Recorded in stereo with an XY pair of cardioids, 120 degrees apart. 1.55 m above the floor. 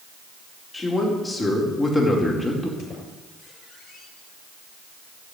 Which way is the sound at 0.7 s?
20° left.